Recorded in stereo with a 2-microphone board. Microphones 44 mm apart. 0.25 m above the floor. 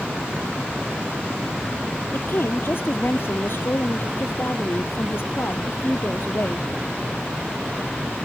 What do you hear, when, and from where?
2.1 s a woman speaking: 55° left (ahead or behind)